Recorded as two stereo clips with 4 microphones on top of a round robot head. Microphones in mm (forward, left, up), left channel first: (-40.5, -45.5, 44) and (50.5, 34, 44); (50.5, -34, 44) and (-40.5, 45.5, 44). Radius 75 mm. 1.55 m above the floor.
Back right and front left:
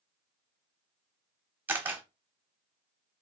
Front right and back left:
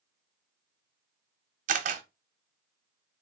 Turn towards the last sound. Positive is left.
turn(degrees=115)